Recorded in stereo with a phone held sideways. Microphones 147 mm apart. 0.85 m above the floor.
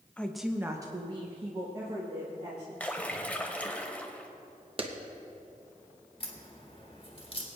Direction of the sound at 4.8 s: 40° right (ahead or behind).